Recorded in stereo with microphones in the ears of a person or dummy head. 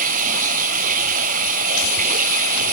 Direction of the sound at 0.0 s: 50° right (ahead or behind).